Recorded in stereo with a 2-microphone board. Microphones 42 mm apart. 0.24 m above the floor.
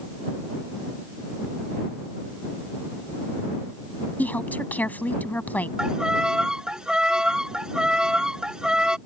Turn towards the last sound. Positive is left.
turn(degrees=-20)  # may be behind; listen again after turning